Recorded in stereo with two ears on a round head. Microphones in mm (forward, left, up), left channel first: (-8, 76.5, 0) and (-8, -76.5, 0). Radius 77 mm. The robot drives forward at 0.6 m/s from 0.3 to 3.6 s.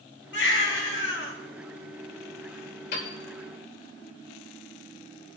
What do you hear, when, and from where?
0.3 s a baby crying: 70° left (ahead or behind), 4 m; by 1.3 s 80° left, 3.5 m
2.9 s a piano: 65° left (ahead or behind), 4.5 m